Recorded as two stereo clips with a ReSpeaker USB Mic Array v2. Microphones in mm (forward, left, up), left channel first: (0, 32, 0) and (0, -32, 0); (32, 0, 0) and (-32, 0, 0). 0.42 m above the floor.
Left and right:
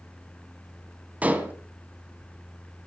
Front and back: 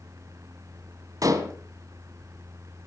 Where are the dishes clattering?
155° right, 2.5 m.